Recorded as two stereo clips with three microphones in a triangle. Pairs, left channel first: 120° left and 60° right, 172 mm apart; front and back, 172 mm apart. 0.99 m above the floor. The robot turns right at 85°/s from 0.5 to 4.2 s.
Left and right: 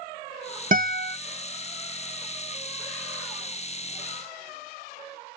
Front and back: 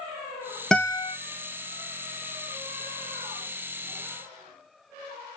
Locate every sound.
0.7 s a guitar: 85° right, 0.5 m; by 1.2 s 50° right, 0.5 m